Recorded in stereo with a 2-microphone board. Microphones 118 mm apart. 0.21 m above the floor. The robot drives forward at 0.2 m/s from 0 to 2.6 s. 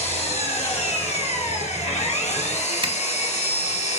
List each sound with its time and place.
0.0 s an engine running: 70° left (ahead or behind), 2 m; by 4.0 s 75° left (ahead or behind), 2.0 m
2.8 s a zipper: 45° right (ahead or behind), 0.6 m